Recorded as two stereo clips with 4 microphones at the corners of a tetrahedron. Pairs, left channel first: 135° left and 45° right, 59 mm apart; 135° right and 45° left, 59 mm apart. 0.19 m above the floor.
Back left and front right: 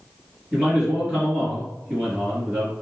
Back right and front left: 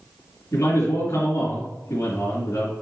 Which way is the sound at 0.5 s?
115° right.